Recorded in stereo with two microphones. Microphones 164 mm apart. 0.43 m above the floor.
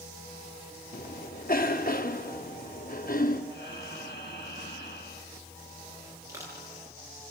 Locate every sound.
0.9 s a cough: 55° left (ahead or behind), 1.5 m
3.5 s breathing: 75° left (ahead or behind), 4 m
6.3 s crushing: 15° right (ahead or behind), 8.5 m